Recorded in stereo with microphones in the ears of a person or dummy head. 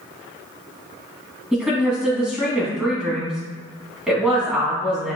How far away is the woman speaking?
About 3 m.